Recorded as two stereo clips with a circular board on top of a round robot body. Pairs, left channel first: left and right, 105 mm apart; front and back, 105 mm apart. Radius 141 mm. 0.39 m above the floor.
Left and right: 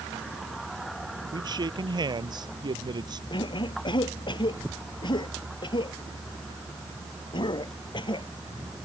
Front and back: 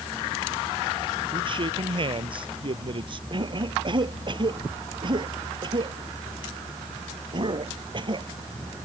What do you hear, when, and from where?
1.3 s a man speaking: 140° right
3.3 s a cough: 135° left